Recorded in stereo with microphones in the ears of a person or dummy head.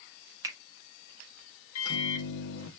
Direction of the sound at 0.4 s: 15° right (ahead or behind).